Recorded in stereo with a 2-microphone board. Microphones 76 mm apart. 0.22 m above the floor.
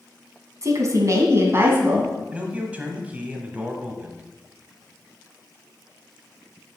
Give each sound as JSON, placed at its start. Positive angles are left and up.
{"t": 0.6, "sound": "a woman speaking", "side_deg": -45, "distance_m": 1.5}
{"t": 2.3, "sound": "a man speaking", "side_deg": -20, "distance_m": 1.3}